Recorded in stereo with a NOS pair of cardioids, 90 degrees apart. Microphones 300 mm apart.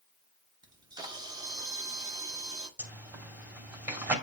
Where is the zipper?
5° right, 2.5 m.